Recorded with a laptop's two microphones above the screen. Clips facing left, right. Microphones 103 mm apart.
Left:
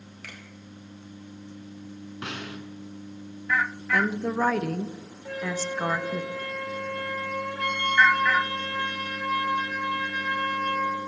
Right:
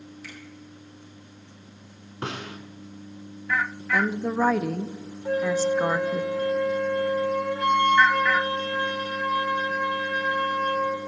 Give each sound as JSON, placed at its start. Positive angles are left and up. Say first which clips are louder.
{"t": 0.2, "sound": "a finger snap", "louder": "left 1 dB", "side_deg": 60, "distance_m": 3.5}
{"t": 2.2, "sound": "a snare drum", "louder": "right 4 dB", "side_deg": -35, "distance_m": 1.8}
{"t": 3.9, "sound": "a woman speaking", "louder": "right 1 dB", "side_deg": -10, "distance_m": 0.6}
{"t": 5.2, "sound": "a flute", "louder": "right 8 dB", "side_deg": -30, "distance_m": 2.5}